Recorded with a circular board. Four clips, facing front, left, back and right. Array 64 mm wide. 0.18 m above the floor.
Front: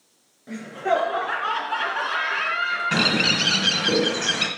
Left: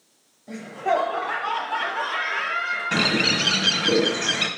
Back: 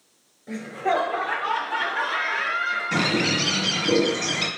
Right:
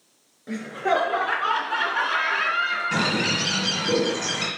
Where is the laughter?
75° right, 3 m; by 3.7 s 30° right, 2 m.